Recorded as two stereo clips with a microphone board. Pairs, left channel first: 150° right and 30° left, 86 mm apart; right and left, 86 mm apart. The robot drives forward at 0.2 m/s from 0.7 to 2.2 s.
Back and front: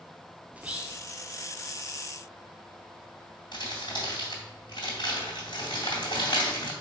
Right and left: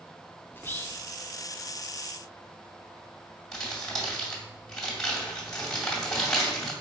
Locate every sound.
0.5 s whispering: 35° right, 0.5 m; by 1.0 s 45° right, 0.5 m
3.5 s crumpling: 170° right, 1.8 m